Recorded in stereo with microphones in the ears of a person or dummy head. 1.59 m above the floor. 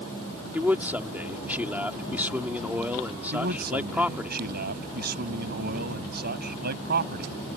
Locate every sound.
0.5 s a man speaking: 5° right (ahead or behind)
3.3 s a man speaking: 55° right (ahead or behind)